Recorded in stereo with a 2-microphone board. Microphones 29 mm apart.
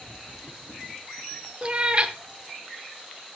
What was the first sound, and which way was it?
A cat meowing, 35° right (ahead or behind).